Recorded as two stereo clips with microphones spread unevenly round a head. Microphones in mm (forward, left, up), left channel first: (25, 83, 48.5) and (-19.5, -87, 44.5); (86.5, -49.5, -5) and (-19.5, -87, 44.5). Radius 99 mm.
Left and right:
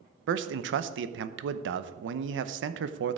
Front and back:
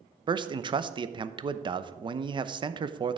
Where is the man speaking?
105° right, 0.8 m.